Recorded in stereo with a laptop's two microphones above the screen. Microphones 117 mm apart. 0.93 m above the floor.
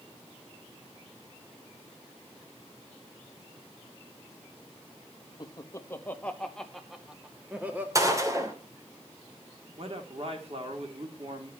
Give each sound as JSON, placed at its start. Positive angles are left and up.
{"t": 5.4, "sound": "laughter", "side_deg": 35, "distance_m": 1.6}
{"t": 8.0, "sound": "a gunshot", "side_deg": -30, "distance_m": 2.5}
{"t": 9.8, "sound": "a man speaking", "side_deg": -55, "distance_m": 3.0}